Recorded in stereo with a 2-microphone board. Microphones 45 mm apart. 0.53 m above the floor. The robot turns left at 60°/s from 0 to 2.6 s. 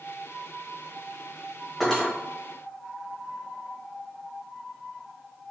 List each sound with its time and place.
1.8 s cutlery clinking: centre (ahead or behind), 1.4 m; by 2.1 s 20° left (ahead or behind), 1.4 m